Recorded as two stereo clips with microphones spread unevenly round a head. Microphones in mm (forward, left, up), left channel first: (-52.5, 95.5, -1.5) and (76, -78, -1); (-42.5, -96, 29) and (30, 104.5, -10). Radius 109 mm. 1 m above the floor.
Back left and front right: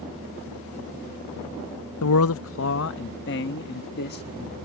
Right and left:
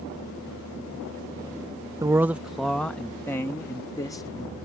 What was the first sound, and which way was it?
A man speaking, 140° left.